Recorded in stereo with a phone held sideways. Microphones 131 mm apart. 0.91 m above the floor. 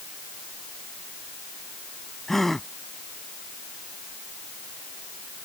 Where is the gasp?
Centre (ahead or behind).